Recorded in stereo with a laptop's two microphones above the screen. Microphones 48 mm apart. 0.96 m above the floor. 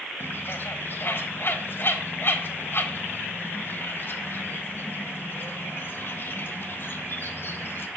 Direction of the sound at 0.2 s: 50° left (ahead or behind).